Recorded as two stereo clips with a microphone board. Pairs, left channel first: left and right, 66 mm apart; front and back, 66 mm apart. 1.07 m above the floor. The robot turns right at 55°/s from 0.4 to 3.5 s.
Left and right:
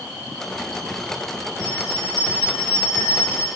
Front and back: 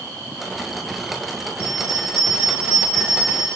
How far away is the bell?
About 1.5 m.